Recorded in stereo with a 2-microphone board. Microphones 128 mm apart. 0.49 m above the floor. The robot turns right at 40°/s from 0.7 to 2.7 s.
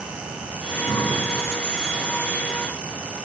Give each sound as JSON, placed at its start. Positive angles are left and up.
{"t": 0.6, "sound": "breathing", "side_deg": 70, "distance_m": 3.5}